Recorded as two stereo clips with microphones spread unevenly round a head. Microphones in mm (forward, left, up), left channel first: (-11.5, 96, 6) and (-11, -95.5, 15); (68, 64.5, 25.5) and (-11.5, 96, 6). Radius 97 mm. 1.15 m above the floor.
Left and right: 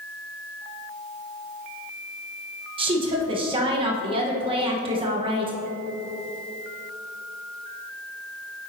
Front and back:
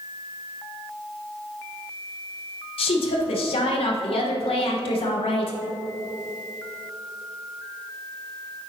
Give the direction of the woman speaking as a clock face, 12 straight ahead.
1 o'clock.